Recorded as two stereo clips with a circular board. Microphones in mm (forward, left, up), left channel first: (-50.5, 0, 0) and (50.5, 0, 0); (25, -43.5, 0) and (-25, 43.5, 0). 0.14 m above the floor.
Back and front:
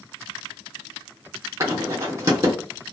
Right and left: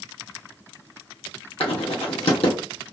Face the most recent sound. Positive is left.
turn(degrees=-55)